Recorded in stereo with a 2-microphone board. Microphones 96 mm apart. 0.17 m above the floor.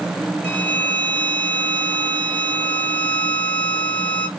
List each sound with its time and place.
0.4 s a violin: 15° left (ahead or behind), 1.2 m